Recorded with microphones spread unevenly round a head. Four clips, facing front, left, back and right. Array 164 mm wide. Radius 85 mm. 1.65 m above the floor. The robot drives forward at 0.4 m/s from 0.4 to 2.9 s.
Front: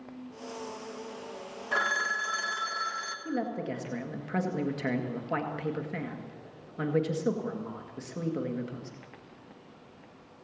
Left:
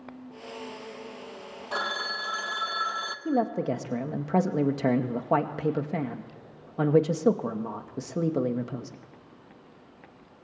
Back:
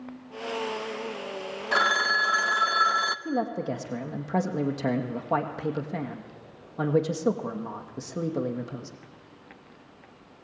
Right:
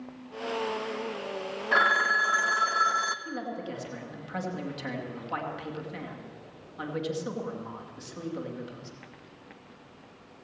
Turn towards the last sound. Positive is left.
turn(degrees=110)